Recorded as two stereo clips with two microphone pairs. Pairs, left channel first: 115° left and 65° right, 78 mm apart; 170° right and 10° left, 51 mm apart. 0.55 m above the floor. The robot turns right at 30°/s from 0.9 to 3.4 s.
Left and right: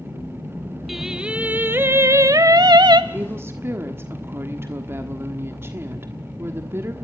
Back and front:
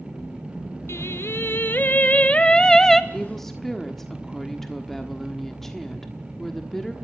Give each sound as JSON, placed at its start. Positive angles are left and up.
{"t": 0.9, "sound": "singing", "azimuth_deg": -150, "distance_m": 0.8}
{"t": 3.1, "sound": "a woman speaking", "azimuth_deg": -100, "distance_m": 1.3}